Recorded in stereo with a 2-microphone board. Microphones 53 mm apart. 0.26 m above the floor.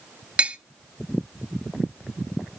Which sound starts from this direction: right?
Tapping, at 0.4 s.